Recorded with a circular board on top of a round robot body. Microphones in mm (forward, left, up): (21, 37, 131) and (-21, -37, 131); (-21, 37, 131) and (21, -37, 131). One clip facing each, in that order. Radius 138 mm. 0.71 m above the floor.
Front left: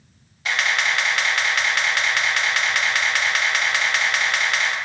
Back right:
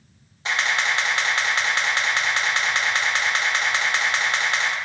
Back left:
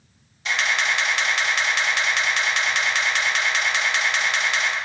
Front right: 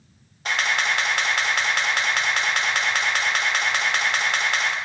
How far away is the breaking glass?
I don't hear breaking glass.